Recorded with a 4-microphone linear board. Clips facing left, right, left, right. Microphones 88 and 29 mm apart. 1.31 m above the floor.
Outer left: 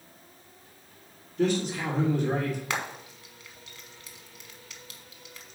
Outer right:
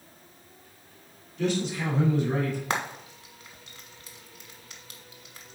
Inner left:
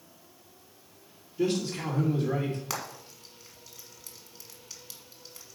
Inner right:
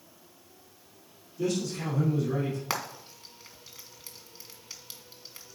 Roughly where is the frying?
Right.